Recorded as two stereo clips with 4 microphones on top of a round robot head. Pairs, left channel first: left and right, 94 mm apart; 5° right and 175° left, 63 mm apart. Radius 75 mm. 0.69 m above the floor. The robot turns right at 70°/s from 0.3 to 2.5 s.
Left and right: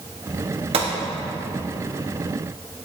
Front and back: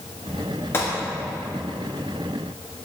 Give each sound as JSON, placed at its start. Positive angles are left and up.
{"t": 0.7, "sound": "a gunshot", "azimuth_deg": -65, "distance_m": 0.6}